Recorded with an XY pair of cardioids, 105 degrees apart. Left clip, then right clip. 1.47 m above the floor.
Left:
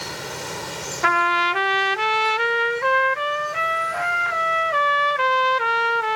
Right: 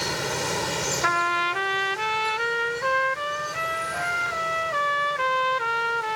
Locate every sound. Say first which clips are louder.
0.0 s running water: right 4 dB; 30° right
1.0 s a trumpet: left 6 dB; 35° left